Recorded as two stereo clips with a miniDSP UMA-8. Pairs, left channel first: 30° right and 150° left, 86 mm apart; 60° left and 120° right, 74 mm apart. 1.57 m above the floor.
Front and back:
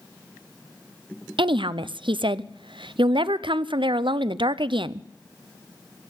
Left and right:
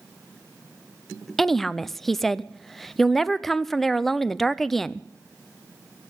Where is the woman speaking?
145° left, 0.5 m.